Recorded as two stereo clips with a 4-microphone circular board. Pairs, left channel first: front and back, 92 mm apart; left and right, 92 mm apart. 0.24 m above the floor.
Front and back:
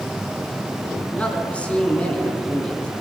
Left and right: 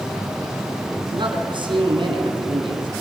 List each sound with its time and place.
1.1 s a man speaking: 75° right, 2 m